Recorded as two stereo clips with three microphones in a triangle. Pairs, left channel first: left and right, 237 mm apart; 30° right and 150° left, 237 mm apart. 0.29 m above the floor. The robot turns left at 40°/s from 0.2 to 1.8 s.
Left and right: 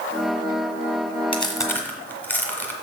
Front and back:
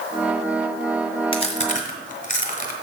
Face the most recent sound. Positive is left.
turn(degrees=10)